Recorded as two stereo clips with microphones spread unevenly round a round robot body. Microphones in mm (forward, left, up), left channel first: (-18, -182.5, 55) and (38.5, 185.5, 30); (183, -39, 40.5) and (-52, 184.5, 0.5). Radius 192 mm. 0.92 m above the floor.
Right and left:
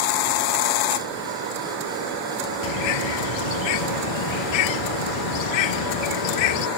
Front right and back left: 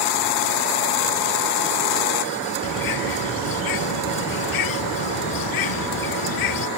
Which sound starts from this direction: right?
A bird, at 2.6 s.